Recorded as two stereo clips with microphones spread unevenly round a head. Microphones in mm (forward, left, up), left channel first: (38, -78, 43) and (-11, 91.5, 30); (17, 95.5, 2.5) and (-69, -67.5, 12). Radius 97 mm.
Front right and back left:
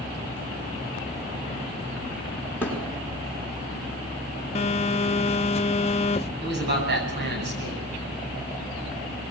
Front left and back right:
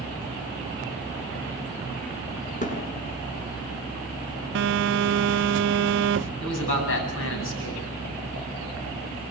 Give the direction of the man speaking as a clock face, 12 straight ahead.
9 o'clock.